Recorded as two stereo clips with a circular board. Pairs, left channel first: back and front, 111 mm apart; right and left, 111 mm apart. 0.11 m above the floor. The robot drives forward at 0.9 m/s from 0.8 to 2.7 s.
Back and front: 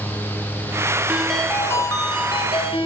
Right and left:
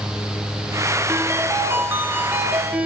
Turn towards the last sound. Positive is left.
turn(degrees=165)